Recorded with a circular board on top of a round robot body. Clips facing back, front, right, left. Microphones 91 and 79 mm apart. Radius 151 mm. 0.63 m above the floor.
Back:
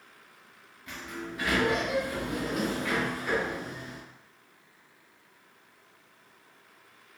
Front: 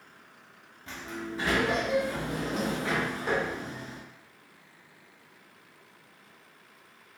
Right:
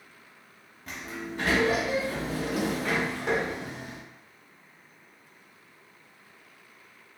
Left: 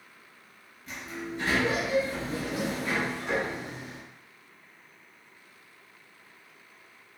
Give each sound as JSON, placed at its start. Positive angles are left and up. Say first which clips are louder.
{"t": 0.9, "sound": "a sliding door", "louder": "front 1 dB, even", "azimuth_deg": -60, "distance_m": 0.5}